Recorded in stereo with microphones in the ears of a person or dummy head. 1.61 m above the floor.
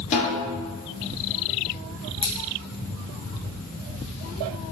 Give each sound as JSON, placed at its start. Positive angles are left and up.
{"t": 0.1, "sound": "a snare drum", "side_deg": 40, "distance_m": 1.2}
{"t": 2.2, "sound": "scissors", "side_deg": 25, "distance_m": 1.4}